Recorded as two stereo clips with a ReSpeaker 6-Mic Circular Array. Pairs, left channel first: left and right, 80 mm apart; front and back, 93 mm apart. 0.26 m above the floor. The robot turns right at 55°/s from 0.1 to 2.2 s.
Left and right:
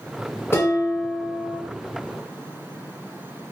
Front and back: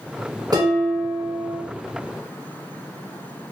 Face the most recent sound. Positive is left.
turn(degrees=-125)